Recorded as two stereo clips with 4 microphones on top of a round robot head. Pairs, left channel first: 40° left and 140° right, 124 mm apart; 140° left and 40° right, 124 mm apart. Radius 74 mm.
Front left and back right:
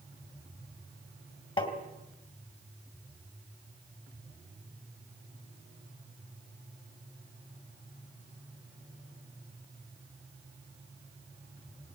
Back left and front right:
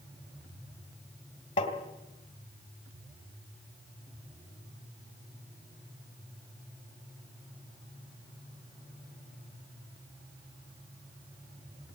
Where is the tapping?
90° left, 2 m.